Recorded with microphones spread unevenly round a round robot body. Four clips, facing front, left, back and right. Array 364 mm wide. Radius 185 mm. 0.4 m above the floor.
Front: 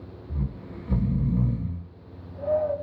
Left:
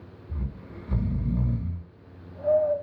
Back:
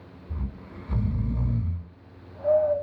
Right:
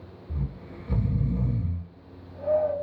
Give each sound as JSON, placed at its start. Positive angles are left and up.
{"t": 0.3, "sound": "snoring", "azimuth_deg": -15, "distance_m": 1.8}